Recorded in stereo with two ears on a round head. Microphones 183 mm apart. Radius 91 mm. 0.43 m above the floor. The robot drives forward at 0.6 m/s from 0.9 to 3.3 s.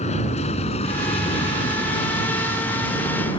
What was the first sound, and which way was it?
An aircraft, 35° left (ahead or behind).